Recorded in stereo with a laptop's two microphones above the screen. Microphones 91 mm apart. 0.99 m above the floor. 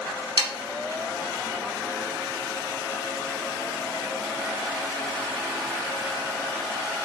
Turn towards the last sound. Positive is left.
turn(degrees=-45)  # may be behind; listen again after turning